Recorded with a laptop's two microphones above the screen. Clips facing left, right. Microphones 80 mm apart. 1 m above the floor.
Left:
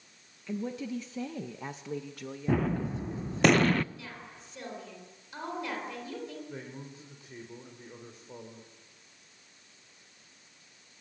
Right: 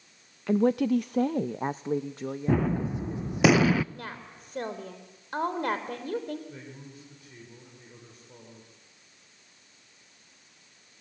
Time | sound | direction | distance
0.5 | a woman speaking | 65° right (ahead or behind) | 0.6 m
2.5 | a gunshot | 5° right (ahead or behind) | 0.6 m
3.9 | a woman speaking | 50° right (ahead or behind) | 4.5 m
6.5 | a man speaking | 25° left (ahead or behind) | 3 m